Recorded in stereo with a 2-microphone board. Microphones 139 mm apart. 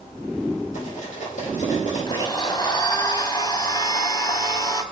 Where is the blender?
30° left (ahead or behind), 0.9 m.